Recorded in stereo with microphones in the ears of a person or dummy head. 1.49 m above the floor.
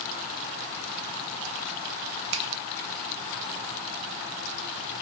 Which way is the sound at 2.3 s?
70° right (ahead or behind).